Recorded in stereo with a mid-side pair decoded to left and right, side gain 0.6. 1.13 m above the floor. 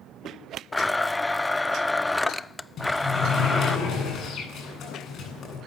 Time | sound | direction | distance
0.7 | a blender | 10° left | 0.5 m
2.8 | a sliding door | 50° left | 9 m